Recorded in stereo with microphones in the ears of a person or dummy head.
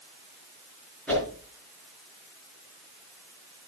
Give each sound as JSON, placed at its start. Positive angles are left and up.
{"t": 1.1, "sound": "a whoosh", "side_deg": 5, "distance_m": 5.5}